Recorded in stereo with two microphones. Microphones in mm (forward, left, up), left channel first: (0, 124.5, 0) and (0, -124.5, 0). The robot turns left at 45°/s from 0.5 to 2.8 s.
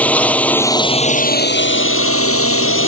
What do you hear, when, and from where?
0.0 s a drone: 175° left; by 2.9 s 70° left